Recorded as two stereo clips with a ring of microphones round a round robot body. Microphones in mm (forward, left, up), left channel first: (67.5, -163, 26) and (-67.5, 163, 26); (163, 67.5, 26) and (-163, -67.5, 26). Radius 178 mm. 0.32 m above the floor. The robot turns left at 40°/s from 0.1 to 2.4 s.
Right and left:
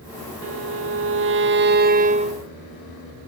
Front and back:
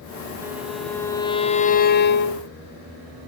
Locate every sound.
0.4 s a violin: 125° left, 0.9 m; by 2.5 s 45° left, 0.9 m